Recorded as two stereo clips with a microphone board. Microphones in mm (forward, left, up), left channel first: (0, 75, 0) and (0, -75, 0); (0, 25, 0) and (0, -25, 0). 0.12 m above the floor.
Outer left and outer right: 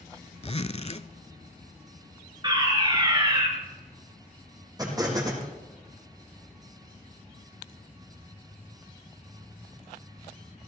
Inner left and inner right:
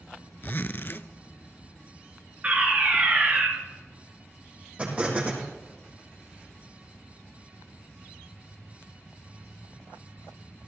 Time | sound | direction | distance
0.4 | a zipper | 45° left (ahead or behind) | 0.5 m
2.4 | a fire alarm | 30° right (ahead or behind) | 3 m
4.8 | an explosion | 25° right (ahead or behind) | 4.5 m